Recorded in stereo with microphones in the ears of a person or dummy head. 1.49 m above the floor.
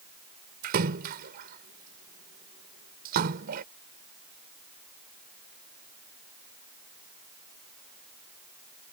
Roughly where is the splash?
Right.